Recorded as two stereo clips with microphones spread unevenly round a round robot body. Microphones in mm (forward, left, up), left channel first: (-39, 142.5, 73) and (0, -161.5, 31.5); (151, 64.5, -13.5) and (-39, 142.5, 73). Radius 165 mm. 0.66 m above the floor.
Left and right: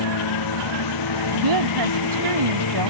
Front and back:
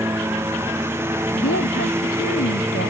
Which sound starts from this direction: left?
A lawn mower, at 0.0 s.